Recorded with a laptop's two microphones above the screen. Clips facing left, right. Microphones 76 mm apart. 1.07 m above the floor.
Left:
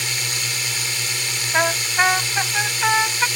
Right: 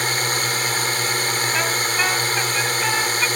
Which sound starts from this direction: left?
A trumpet, at 1.5 s.